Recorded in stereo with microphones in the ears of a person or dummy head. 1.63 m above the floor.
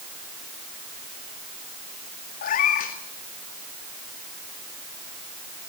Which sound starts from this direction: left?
A cat meowing, at 2.4 s.